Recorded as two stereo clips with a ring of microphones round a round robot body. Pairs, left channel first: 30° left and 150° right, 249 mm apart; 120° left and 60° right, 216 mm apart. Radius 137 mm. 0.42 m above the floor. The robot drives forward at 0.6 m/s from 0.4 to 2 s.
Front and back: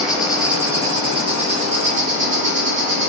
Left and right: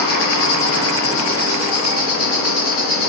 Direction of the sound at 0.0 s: 120° left.